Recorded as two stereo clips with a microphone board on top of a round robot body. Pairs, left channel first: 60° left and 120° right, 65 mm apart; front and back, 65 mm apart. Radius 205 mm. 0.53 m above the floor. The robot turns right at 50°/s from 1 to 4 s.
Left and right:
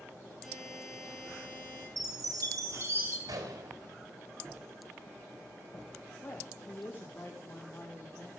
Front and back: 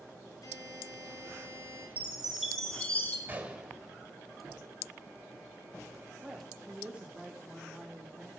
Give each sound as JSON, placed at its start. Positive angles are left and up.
{"t": 0.4, "sound": "a buzzer", "azimuth_deg": -30, "distance_m": 5.5}
{"t": 2.0, "sound": "a chime", "azimuth_deg": -115, "distance_m": 4.0}
{"t": 3.3, "sound": "a gunshot", "azimuth_deg": -120, "distance_m": 3.5}
{"t": 6.2, "sound": "a woman speaking", "azimuth_deg": 105, "distance_m": 2.0}